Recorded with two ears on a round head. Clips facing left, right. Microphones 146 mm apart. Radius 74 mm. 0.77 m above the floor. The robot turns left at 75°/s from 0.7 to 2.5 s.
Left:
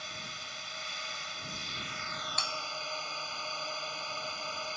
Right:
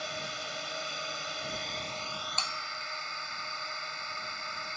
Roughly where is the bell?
Centre.